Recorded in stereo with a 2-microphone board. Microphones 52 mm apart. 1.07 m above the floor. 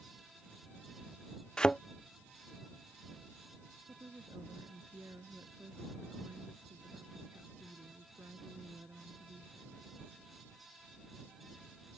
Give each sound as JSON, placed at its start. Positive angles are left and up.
{"t": 1.6, "sound": "a thud", "side_deg": 15}
{"t": 3.9, "sound": "a woman speaking", "side_deg": -60}